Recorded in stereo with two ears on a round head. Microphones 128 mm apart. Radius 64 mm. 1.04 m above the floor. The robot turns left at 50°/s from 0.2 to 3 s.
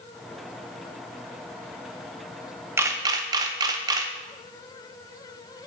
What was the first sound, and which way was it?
A camera shutter, 15° right (ahead or behind).